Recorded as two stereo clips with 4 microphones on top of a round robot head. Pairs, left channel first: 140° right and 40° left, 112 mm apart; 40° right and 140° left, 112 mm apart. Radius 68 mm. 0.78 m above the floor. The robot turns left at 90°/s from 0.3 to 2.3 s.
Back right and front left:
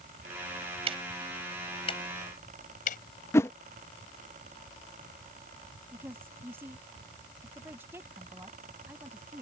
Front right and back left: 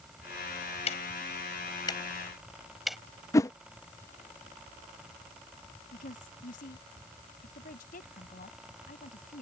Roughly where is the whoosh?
Right.